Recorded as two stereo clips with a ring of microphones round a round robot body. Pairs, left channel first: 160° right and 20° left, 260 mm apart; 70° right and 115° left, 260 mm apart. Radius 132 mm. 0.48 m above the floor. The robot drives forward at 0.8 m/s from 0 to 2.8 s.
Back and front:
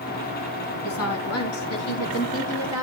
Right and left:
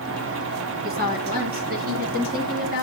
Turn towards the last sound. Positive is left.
turn(degrees=170)